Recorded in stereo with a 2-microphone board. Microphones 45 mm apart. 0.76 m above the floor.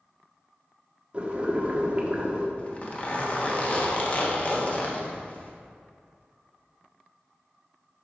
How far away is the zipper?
About 1.2 m.